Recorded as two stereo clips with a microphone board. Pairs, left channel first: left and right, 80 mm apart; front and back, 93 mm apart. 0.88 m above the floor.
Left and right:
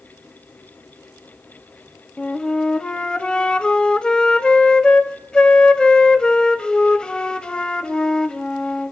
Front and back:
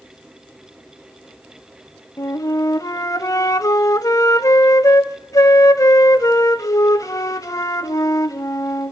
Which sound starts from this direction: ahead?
A flute, at 2.2 s.